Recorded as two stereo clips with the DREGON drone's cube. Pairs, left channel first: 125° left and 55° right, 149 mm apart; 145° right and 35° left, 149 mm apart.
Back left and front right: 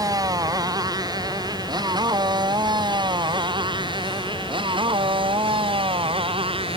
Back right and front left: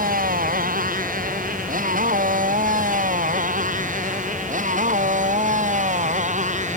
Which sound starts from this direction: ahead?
A motorcycle, at 0.0 s.